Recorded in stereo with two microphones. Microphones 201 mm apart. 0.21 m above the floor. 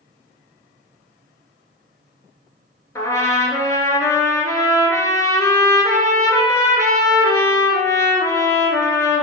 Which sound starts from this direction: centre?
A trumpet, at 3.0 s.